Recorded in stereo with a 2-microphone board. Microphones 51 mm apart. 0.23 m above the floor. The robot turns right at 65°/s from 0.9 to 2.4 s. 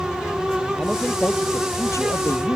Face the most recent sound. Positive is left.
turn(degrees=105)